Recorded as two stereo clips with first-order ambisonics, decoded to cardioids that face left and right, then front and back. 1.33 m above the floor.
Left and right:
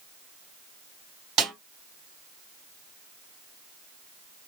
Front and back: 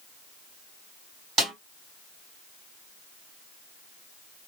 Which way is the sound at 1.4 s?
130° right.